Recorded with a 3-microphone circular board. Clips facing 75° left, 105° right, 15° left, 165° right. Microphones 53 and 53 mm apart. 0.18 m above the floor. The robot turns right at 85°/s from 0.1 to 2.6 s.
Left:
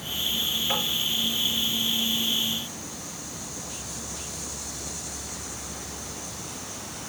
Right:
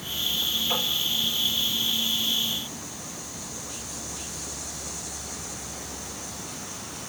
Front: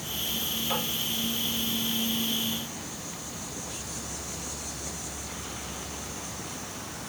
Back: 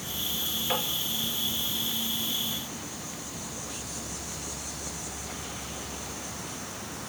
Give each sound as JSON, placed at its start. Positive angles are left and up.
{"t": 0.7, "sound": "tapping", "azimuth_deg": 135, "distance_m": 3.5}